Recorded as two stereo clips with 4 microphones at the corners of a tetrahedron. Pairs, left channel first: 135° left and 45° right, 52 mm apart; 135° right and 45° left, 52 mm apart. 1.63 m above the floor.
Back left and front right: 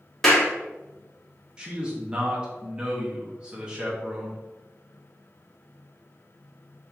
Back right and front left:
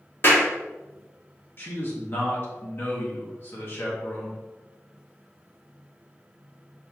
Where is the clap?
145° right, 1.0 m.